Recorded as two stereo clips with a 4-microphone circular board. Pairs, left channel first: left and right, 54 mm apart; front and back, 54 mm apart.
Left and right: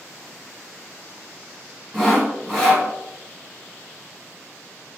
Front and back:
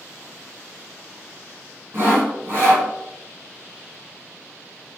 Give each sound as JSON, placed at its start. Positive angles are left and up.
{"t": 1.9, "sound": "sawing", "azimuth_deg": 175, "distance_m": 1.1}